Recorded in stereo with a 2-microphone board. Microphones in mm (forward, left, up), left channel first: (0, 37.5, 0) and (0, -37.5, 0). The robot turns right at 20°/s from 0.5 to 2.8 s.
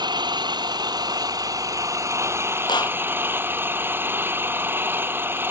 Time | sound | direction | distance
0.0 | an engine running | 75° right | ?
2.7 | a clap | 75° left (ahead or behind) | ?